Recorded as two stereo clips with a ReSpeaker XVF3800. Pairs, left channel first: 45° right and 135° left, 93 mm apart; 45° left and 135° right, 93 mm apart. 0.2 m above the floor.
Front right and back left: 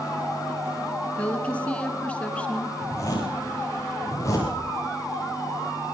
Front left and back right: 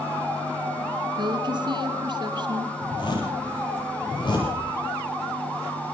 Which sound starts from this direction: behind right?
A woman speaking, at 1.2 s.